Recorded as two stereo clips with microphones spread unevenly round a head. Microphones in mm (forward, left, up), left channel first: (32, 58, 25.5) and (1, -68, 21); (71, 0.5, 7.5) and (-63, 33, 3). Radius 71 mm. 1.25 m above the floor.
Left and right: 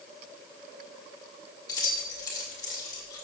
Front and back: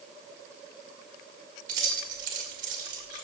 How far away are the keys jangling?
About 2.5 m.